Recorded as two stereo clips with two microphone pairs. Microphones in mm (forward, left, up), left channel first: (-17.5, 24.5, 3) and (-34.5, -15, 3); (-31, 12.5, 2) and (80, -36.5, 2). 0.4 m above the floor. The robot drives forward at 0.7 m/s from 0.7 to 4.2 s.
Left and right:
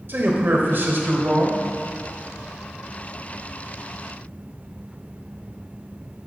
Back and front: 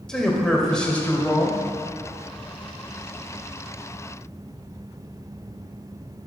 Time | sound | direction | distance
0.1 | a man speaking | 120° right | 1.2 m